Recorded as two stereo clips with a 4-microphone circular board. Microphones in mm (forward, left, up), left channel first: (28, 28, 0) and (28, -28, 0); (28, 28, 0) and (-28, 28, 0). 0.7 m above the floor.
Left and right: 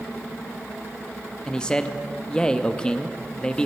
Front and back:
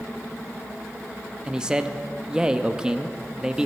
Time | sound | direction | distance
1.5 | a man speaking | 130° left | 0.5 m